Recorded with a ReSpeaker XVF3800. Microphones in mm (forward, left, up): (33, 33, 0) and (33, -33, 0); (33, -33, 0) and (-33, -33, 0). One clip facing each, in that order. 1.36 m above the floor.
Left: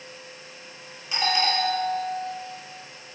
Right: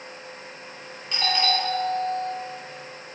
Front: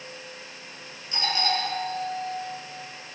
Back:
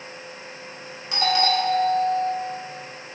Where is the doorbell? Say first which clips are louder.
Even, back 6 dB; 175° left, 6 m.